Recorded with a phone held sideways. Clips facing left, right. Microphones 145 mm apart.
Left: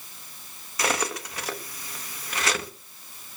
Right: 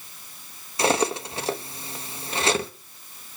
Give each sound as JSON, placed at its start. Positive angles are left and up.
{"t": 0.8, "sound": "cutlery clinking", "side_deg": -25, "distance_m": 1.1}